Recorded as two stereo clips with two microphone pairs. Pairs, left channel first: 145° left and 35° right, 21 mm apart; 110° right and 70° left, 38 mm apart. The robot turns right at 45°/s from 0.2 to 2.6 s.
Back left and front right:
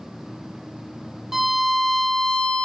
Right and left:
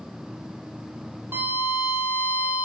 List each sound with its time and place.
1.3 s a violin: 45° left, 0.5 m; by 2.7 s 100° left, 0.5 m